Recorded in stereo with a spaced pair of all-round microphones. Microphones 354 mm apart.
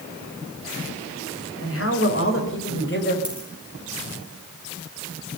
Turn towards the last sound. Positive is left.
turn(degrees=80)